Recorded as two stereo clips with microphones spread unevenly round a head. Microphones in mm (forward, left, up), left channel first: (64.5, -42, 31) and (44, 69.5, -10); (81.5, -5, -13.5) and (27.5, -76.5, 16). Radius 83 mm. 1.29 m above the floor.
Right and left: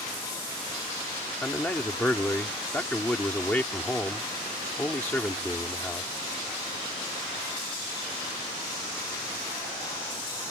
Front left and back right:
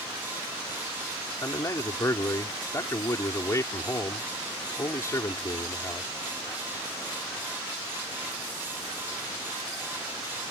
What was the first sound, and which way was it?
A man speaking, 5° right.